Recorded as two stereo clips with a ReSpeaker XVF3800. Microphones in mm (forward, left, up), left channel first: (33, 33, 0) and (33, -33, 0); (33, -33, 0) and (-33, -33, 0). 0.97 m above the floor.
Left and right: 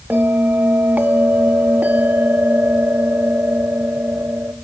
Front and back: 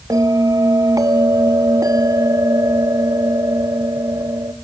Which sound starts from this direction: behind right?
A bell, at 0.1 s.